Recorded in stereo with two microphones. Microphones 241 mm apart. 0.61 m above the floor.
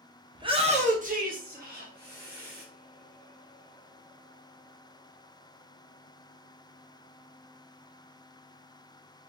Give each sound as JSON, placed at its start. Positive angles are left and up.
{"t": 0.3, "sound": "a shout", "side_deg": -20, "distance_m": 0.8}